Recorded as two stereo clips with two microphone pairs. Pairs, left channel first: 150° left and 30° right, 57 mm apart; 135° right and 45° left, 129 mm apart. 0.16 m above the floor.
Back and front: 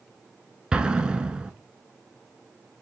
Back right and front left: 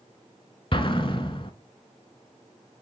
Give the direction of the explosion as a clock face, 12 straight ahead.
3 o'clock.